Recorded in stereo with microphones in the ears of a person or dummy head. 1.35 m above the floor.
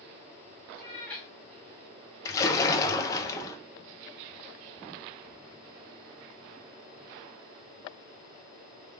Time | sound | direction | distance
0.7 | a cat meowing | 15° left (ahead or behind) | 0.9 m
2.2 | a splash | 20° left (ahead or behind) | 0.8 m